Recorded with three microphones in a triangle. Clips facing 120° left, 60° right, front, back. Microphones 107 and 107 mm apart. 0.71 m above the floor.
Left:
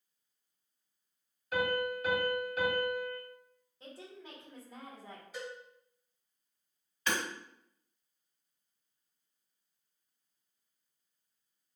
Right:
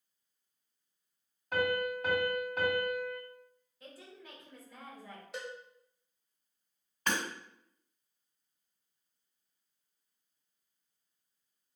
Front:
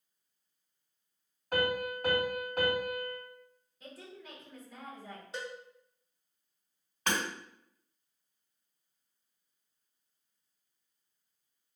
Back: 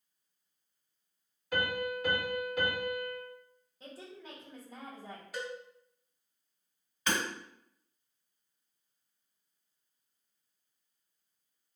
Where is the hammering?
20° right, 1.6 m.